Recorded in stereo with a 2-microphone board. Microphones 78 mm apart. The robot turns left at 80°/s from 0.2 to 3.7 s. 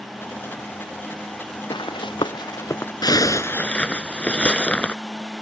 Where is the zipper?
70° left; by 5.0 s 15° left.